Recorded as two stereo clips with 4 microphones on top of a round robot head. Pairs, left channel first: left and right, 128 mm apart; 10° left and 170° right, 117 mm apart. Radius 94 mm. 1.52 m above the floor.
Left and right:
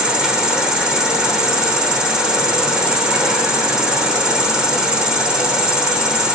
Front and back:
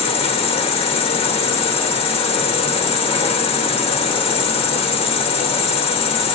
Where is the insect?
5° right, 1.2 m.